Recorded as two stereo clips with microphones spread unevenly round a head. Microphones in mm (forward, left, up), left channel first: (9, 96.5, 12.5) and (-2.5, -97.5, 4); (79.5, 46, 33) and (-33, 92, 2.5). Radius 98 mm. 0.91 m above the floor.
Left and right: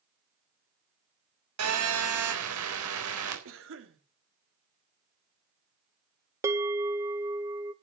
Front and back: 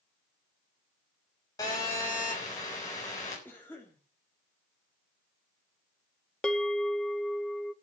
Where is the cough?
105° right, 3 m.